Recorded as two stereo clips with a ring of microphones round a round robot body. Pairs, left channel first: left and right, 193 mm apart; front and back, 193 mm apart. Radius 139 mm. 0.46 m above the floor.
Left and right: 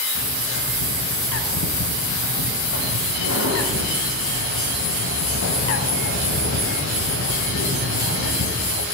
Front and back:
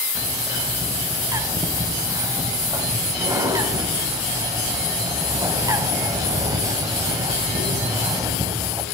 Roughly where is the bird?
Left.